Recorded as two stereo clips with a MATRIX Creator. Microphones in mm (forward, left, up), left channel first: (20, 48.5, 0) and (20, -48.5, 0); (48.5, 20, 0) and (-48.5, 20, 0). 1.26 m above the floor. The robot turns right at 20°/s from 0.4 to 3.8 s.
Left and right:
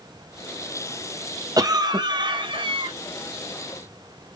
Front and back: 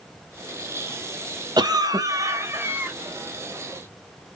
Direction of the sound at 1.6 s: 140° right.